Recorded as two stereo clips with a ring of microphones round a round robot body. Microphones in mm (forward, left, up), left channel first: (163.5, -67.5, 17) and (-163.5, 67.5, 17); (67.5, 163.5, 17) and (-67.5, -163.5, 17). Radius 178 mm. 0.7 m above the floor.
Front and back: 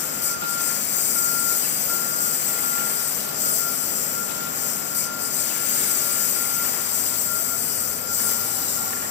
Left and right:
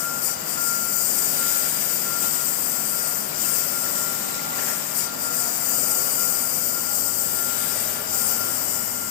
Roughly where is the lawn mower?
Ahead left.